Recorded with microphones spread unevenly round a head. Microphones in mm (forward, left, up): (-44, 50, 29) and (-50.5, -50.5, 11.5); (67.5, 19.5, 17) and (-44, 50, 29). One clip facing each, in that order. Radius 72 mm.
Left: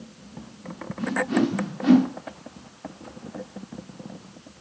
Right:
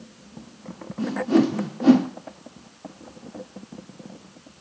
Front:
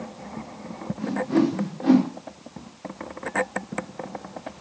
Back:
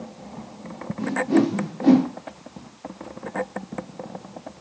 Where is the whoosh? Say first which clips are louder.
Right 3 dB, back 2 dB; 145° right, 1.1 m.